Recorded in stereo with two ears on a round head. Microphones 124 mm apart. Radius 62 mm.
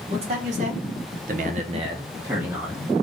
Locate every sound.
0.1 s a man speaking: 45° right (ahead or behind), 1.1 m; by 2.9 s 5° right (ahead or behind), 1.0 m